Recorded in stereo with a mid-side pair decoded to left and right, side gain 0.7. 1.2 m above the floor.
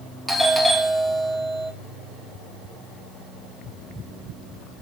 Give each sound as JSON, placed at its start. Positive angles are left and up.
{"t": 0.3, "sound": "a doorbell", "azimuth_deg": 0, "distance_m": 2.5}